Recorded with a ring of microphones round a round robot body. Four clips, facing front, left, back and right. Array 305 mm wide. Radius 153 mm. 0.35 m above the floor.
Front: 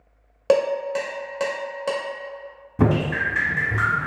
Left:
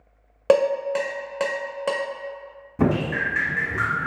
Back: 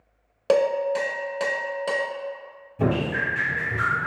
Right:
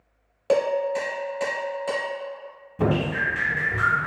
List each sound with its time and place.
0.5 s dishes clattering: 80° left, 0.7 m
2.8 s dripping: 25° left, 0.9 m